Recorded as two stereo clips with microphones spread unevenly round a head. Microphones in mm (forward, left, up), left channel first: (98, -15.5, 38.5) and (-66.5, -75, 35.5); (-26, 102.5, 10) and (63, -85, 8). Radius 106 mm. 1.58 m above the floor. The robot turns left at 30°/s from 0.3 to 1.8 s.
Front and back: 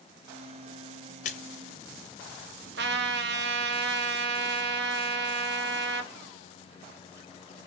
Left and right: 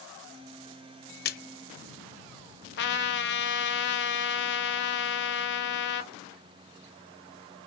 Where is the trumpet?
160° left, 1.1 m.